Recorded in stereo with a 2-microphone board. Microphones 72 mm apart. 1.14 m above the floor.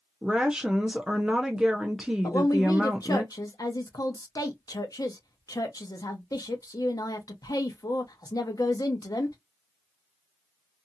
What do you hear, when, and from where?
0.2 s a woman speaking: 10° right (ahead or behind), 0.6 m
2.2 s a woman speaking: 55° left (ahead or behind), 0.9 m